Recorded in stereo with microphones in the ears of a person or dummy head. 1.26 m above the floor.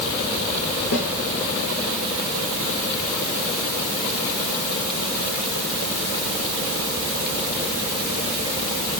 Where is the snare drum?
65° left (ahead or behind), 9.5 m.